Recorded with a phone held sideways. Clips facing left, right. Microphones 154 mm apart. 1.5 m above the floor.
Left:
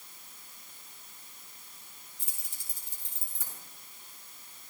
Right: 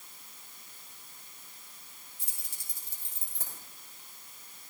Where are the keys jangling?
65° right (ahead or behind), 5.5 m.